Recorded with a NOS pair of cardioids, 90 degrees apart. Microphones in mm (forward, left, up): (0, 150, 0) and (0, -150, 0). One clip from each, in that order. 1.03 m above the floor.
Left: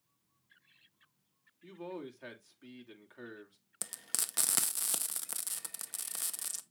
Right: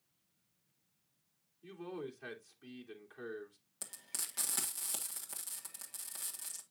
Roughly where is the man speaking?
Ahead.